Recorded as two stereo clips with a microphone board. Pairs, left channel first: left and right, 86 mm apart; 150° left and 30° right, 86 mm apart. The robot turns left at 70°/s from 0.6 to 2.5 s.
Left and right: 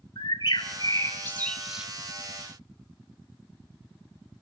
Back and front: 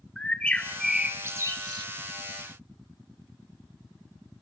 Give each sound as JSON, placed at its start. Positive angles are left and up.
{"t": 0.2, "sound": "a bird", "azimuth_deg": 75, "distance_m": 1.7}